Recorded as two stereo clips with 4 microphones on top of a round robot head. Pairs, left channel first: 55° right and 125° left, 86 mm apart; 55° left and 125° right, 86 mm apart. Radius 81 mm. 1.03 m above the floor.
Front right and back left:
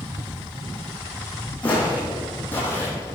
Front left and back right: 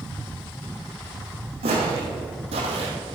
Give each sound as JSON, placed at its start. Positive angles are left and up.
{"t": 1.6, "sound": "footsteps", "azimuth_deg": -130, "distance_m": 3.0}